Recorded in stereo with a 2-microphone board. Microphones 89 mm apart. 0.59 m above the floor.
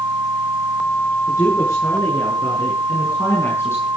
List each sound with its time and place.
1.3 s a woman speaking: 35° left (ahead or behind), 8 m; by 3.9 s 30° left (ahead or behind), 4.5 m